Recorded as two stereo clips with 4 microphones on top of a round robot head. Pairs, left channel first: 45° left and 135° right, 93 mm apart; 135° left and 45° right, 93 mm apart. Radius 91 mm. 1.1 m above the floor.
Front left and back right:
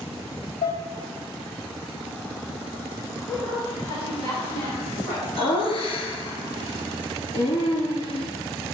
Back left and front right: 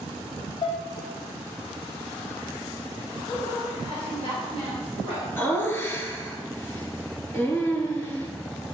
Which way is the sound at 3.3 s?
100° left.